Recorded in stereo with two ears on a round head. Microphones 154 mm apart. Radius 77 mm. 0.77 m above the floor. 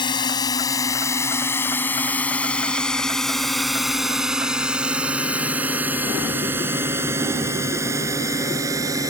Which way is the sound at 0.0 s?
25° left (ahead or behind).